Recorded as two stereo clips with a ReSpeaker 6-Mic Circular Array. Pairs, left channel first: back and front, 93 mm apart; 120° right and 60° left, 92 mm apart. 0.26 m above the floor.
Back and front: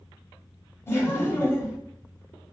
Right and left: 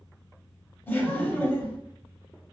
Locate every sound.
0.9 s laughter: 165° right, 1.2 m